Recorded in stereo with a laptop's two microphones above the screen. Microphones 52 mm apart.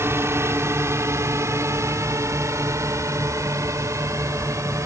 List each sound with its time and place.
0.0 s a drone: 55° right (ahead or behind); by 4.9 s 70° right (ahead or behind)